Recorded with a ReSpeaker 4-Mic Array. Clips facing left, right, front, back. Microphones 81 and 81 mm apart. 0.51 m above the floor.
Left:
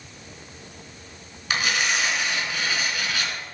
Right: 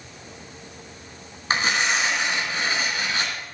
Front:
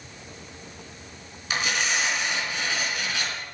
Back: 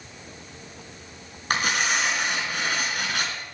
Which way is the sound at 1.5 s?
145° right.